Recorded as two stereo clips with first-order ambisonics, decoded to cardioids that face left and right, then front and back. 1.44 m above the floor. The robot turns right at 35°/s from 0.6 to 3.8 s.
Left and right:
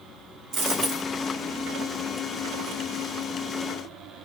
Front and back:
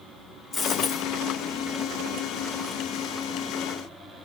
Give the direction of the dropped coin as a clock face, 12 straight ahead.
2 o'clock.